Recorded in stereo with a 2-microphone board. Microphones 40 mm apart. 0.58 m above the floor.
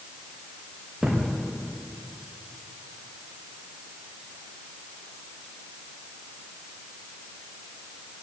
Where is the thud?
5° right (ahead or behind), 5.5 m.